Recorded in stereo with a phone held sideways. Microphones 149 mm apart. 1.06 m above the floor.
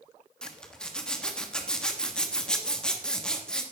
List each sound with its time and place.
0.4 s a zipper: 5° left (ahead or behind), 1.3 m